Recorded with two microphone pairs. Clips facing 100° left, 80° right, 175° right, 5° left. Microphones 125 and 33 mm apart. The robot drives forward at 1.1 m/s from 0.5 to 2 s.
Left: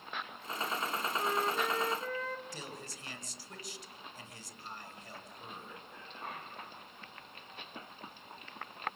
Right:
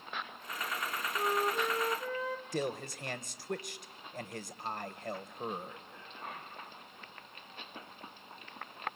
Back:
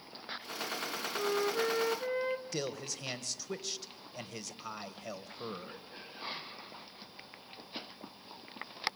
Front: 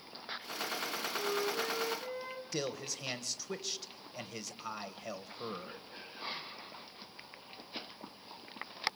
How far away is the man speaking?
About 1.9 m.